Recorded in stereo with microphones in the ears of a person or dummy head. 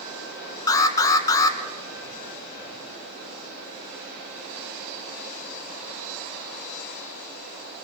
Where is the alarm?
20° left (ahead or behind), 1.7 m.